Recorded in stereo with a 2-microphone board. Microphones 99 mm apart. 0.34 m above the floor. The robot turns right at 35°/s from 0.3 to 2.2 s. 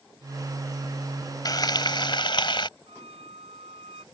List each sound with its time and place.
1.4 s frying: 45° left (ahead or behind); by 2.7 s 55° left (ahead or behind)
2.9 s a violin: 85° right